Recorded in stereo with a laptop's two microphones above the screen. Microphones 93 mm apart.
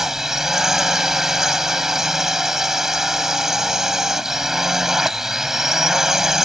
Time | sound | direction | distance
0.0 | a drone | 5° right (ahead or behind) | ?